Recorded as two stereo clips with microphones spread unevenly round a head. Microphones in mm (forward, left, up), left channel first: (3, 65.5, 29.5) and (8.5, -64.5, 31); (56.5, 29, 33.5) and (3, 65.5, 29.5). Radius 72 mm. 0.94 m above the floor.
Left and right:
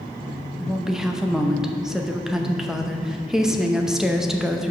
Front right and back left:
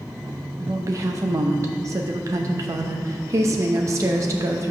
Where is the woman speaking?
175° right, 0.7 m.